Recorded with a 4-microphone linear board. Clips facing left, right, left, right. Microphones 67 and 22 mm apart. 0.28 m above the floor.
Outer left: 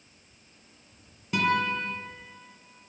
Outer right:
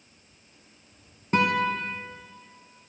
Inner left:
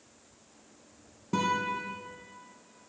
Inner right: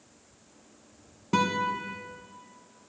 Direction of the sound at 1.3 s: 40° right (ahead or behind).